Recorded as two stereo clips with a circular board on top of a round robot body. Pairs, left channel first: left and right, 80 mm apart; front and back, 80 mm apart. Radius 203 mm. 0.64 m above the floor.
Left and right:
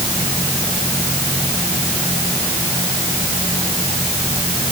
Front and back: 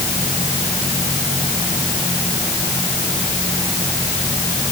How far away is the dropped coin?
I don't hear a dropped coin.